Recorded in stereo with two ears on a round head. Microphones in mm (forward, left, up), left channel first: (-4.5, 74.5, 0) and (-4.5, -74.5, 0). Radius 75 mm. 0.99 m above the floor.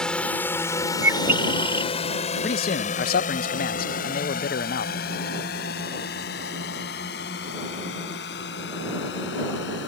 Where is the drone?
5° left (ahead or behind); by 9.9 s 75° left (ahead or behind).